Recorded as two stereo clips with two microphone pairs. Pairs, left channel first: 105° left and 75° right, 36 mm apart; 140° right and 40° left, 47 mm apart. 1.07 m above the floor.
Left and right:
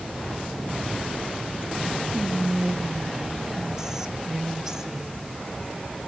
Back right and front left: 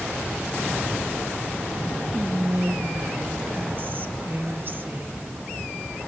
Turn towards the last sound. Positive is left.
turn(degrees=0)